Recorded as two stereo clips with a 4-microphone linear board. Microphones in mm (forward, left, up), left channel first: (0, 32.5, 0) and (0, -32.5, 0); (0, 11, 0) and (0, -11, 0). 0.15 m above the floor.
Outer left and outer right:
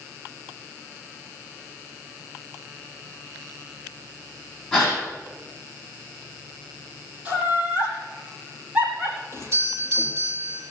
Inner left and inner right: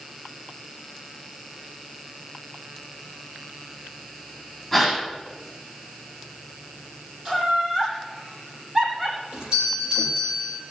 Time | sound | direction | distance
4.7 | a gasp | centre (ahead or behind) | 7.5 m
7.2 | laughter | 20° right (ahead or behind) | 8 m
9.3 | a doorbell | 40° right (ahead or behind) | 6.5 m